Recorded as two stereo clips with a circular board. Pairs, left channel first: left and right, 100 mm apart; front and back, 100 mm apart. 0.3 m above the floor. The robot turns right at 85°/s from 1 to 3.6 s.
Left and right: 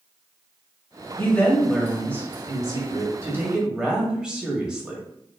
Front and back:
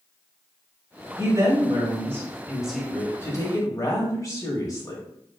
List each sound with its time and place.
1.2 s a woman speaking: 140° left, 1.2 m; by 5.0 s 15° right, 1.2 m